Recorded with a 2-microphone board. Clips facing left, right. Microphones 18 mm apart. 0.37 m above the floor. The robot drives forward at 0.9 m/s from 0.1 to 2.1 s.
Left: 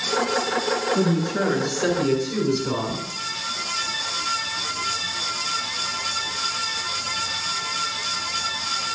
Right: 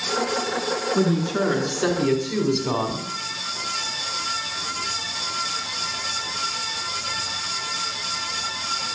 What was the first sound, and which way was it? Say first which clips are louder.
A woman speaking: even; 50° right (ahead or behind).